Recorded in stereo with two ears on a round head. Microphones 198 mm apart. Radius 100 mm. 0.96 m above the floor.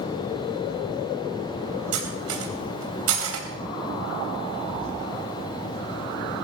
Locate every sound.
1.9 s cutlery clinking: 65° right (ahead or behind), 3.5 m